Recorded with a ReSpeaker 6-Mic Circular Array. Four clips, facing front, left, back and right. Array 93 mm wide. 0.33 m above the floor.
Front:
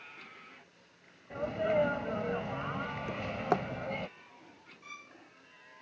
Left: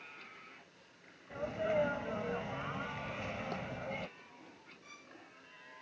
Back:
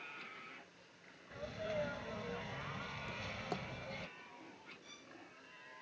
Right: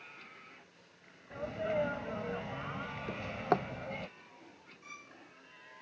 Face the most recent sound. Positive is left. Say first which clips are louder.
# right 5 dB, front 6 dB
turn(degrees=-20)